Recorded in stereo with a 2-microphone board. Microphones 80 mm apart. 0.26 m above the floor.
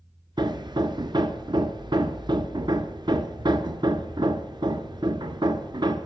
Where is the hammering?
65° right (ahead or behind), 0.9 m.